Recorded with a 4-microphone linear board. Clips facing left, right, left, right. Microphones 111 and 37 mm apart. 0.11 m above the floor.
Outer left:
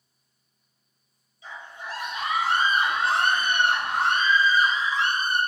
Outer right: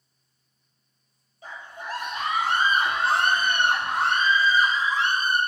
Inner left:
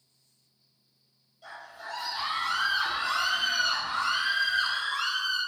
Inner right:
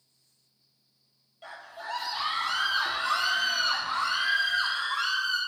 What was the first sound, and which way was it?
A scream, 45° right (ahead or behind).